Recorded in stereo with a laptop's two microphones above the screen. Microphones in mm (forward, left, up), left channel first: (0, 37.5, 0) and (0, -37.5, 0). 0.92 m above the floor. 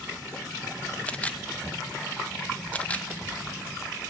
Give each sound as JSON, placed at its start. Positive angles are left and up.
{"t": 1.1, "sound": "a camera shutter", "side_deg": 20, "distance_m": 1.1}